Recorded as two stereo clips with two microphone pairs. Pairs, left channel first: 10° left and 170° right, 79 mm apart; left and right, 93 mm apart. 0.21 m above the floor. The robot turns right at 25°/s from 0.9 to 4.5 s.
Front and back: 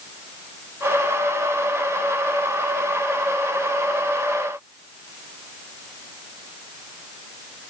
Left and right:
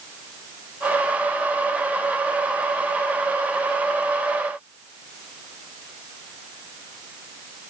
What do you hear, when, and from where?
Only background noise.